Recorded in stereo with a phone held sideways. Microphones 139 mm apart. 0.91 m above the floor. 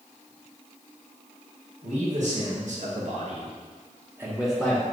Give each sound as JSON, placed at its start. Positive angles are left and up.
{"t": 1.8, "sound": "a man speaking", "side_deg": -60, "distance_m": 1.5}